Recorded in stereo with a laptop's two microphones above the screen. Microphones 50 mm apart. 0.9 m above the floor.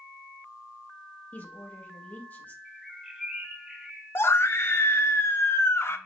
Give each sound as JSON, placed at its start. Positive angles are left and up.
{"t": 1.3, "sound": "a woman speaking", "side_deg": 35, "distance_m": 1.1}
{"t": 2.6, "sound": "a bird", "side_deg": -10, "distance_m": 0.7}
{"t": 4.2, "sound": "a scream", "side_deg": 55, "distance_m": 0.5}